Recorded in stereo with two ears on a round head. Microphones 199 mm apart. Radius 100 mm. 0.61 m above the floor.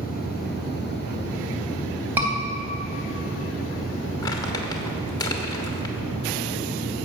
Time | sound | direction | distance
2.2 | a scream | 10° right (ahead or behind) | 3.5 m
4.2 | crumpling | 20° left (ahead or behind) | 1.2 m